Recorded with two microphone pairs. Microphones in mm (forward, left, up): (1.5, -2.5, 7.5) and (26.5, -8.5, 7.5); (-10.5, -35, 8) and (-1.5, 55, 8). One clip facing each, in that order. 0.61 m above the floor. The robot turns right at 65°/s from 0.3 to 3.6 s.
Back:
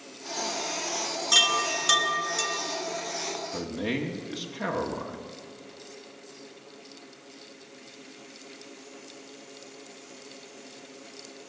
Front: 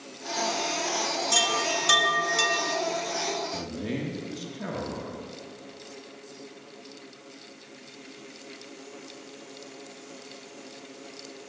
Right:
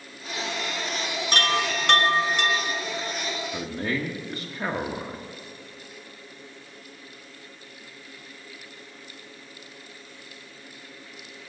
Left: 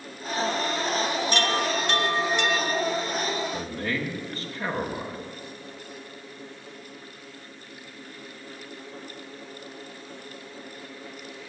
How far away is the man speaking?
About 1.1 m.